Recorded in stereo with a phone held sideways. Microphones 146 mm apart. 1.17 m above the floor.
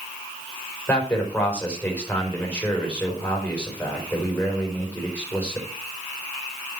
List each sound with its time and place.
0.9 s a man speaking: 10° left (ahead or behind), 4.5 m